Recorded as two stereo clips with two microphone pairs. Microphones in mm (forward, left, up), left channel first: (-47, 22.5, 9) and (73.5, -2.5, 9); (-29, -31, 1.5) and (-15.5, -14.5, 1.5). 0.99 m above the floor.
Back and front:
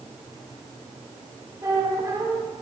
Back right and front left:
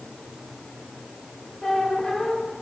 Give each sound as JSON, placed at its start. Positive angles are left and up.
{"t": 1.6, "sound": "a squeak", "azimuth_deg": -70, "distance_m": 1.3}